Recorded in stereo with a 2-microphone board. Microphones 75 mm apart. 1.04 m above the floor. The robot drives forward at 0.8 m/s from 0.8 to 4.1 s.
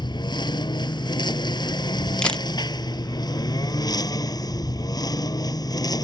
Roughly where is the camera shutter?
Centre.